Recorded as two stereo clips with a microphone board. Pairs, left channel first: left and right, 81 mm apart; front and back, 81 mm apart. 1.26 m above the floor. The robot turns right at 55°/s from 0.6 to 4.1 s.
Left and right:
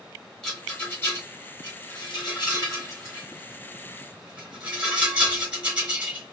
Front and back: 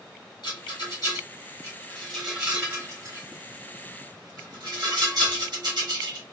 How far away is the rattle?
About 2 m.